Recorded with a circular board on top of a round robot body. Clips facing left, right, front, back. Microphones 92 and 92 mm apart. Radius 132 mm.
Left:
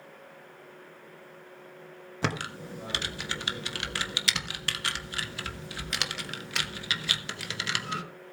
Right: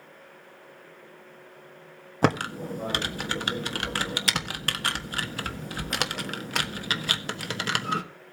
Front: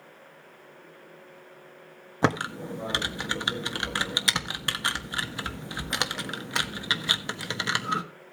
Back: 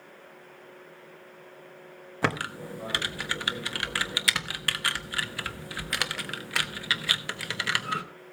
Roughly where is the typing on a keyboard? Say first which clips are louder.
Right 8 dB, front 4 dB; ahead right.